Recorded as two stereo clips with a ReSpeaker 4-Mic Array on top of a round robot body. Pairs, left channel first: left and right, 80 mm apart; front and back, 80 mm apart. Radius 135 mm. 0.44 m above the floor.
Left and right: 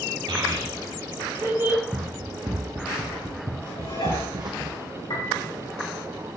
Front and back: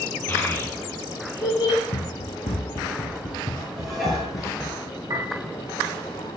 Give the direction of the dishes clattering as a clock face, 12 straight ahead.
9 o'clock.